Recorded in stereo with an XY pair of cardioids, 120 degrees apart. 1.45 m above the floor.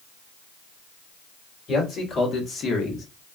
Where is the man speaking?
35° left, 1.8 m; by 3.1 s 60° left, 0.9 m.